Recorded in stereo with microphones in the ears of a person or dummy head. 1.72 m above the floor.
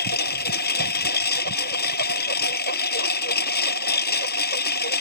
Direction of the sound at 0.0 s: 55° left (ahead or behind).